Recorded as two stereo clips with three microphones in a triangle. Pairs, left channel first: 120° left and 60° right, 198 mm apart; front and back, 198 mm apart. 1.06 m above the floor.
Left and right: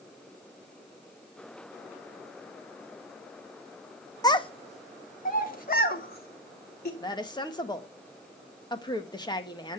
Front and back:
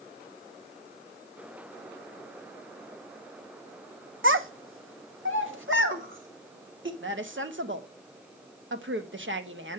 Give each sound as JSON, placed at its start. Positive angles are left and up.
{"t": 4.2, "sound": "a child speaking", "azimuth_deg": -170, "distance_m": 0.9}
{"t": 7.0, "sound": "a woman speaking", "azimuth_deg": -170, "distance_m": 1.4}